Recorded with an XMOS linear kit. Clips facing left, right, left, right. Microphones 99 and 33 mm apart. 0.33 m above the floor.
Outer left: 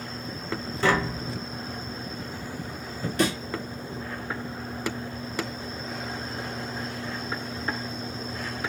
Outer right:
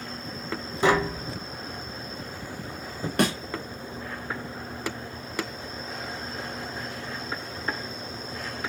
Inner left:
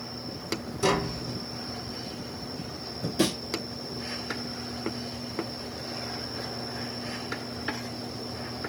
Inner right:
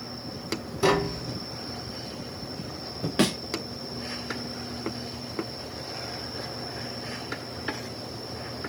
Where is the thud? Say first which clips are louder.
Outer right 1 dB, inner right 2 dB; 60° right (ahead or behind), 1.6 m.